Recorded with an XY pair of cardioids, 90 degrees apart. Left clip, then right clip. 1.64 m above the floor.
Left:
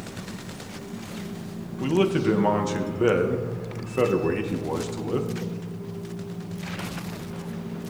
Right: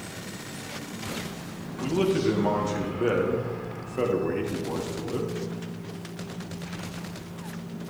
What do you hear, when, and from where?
0.0 s a machine running: 70° left, 4.5 m
1.8 s a man speaking: 40° left, 2 m